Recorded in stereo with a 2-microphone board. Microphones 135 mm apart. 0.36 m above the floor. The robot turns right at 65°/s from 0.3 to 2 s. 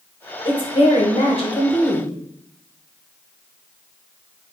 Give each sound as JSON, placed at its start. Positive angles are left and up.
{"t": 0.5, "sound": "a woman speaking", "azimuth_deg": 45, "distance_m": 1.2}